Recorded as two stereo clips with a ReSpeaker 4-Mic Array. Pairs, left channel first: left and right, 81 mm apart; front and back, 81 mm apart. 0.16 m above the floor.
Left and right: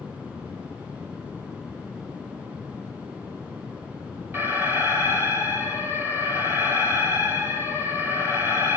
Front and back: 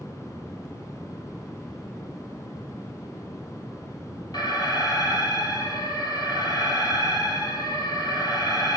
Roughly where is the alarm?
Ahead right.